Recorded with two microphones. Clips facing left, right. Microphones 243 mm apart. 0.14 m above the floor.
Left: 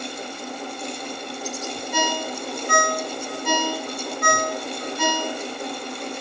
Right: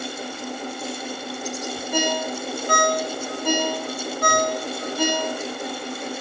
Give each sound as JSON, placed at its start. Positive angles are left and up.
{"t": 1.9, "sound": "a ringtone", "side_deg": -40, "distance_m": 0.5}